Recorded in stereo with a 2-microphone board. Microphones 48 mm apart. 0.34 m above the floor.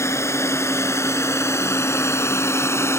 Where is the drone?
75° left (ahead or behind); by 3.0 s 65° left (ahead or behind).